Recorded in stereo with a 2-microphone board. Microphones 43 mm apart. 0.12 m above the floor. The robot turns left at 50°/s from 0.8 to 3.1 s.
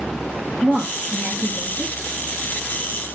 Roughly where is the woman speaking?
Ahead.